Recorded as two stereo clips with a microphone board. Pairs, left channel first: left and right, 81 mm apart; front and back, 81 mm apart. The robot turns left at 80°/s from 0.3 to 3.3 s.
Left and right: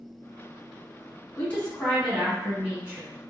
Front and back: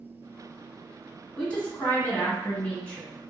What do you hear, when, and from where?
1.4 s a woman speaking: 60° left, 1.1 m; by 3.1 s 75° right, 1.1 m